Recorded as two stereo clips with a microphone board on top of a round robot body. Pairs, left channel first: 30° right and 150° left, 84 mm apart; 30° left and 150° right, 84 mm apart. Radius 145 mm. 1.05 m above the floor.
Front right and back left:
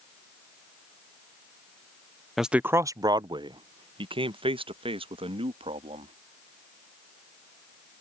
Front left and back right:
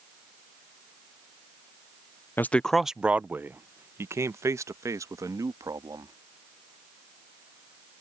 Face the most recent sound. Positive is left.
turn(degrees=155)